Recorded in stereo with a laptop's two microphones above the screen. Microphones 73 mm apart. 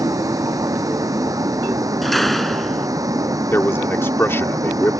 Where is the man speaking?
35° left (ahead or behind).